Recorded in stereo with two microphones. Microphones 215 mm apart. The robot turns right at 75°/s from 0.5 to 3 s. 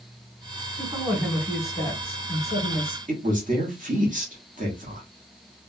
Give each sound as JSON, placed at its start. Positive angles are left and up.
{"t": 0.8, "sound": "a woman speaking", "side_deg": -15, "distance_m": 1.1}
{"t": 3.1, "sound": "a woman speaking", "side_deg": -40, "distance_m": 1.1}